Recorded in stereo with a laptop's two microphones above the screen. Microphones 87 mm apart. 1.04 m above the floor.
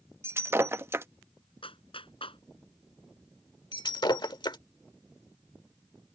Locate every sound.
0.2 s breaking glass: 30° right (ahead or behind)
1.6 s a clap: 90° left
3.7 s breaking glass: 55° left (ahead or behind)